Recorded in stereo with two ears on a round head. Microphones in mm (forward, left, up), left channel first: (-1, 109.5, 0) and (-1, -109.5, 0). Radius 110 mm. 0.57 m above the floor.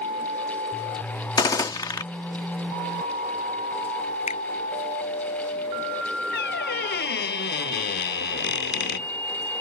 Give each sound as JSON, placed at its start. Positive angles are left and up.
{"t": 1.4, "sound": "a gunshot", "side_deg": 15}
{"t": 4.3, "sound": "a finger snap", "side_deg": 30}
{"t": 6.3, "sound": "a squeak", "side_deg": 45}